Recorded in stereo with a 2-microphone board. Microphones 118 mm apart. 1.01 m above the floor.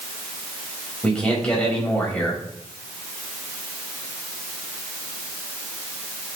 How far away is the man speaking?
About 5 m.